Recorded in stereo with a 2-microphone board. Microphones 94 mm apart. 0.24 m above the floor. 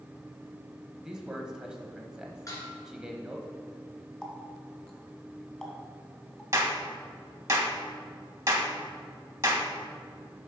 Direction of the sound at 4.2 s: 5° left (ahead or behind).